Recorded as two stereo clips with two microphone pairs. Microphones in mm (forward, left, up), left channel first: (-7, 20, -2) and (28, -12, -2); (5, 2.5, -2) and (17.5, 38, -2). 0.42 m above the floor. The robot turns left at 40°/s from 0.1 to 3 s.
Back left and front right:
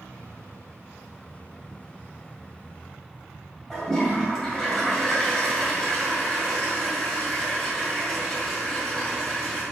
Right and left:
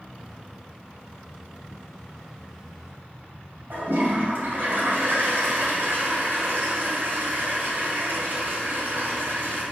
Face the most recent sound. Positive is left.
turn(degrees=60)